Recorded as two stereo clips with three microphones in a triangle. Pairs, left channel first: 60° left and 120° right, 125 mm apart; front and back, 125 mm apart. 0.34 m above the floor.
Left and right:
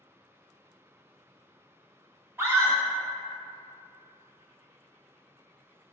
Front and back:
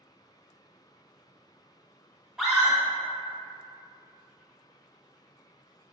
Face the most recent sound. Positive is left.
turn(degrees=-95)